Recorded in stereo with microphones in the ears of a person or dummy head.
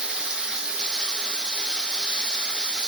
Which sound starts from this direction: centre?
Running water, at 0.0 s.